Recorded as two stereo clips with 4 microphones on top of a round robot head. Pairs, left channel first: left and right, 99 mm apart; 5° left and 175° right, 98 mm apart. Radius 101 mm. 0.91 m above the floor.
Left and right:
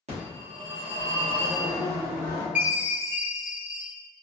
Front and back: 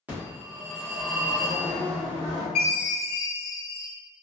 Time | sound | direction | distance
0.1 | a phone ringing | 95° right | 1.5 m
2.5 | a chime | 15° right | 0.6 m